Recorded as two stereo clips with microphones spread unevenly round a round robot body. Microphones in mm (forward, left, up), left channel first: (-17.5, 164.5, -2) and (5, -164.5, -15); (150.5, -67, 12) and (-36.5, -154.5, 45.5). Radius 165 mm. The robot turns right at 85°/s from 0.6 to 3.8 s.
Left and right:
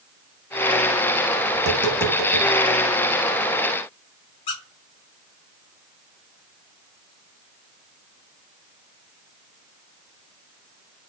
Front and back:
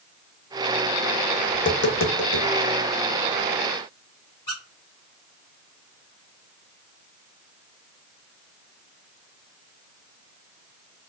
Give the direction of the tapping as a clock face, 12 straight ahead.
1 o'clock.